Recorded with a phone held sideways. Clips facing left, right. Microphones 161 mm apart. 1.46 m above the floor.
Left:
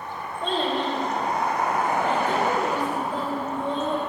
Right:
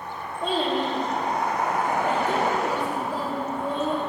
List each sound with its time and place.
0.4 s a child speaking: 10° right (ahead or behind), 1.7 m